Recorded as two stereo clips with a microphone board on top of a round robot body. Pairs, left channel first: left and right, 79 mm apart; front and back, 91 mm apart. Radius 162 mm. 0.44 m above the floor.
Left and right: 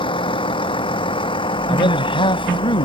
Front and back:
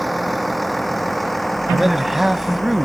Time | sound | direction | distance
0.0 | a vehicle | 90° left | ?
1.7 | a man speaking | 90° left | ?